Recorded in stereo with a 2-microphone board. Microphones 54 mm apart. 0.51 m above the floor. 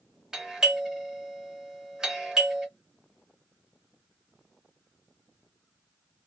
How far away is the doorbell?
About 1.3 m.